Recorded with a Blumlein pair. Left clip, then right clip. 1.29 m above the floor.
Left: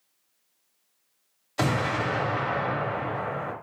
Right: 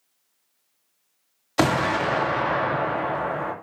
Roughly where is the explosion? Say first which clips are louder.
Right 5 dB; ahead right.